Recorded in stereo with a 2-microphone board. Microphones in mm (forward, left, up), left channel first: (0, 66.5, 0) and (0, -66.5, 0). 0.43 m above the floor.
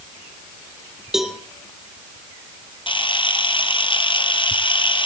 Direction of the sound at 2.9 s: 40° left (ahead or behind).